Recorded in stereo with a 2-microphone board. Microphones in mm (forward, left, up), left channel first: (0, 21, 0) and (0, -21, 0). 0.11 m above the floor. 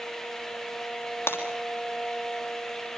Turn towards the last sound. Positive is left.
turn(degrees=65)  # may be behind; listen again after turning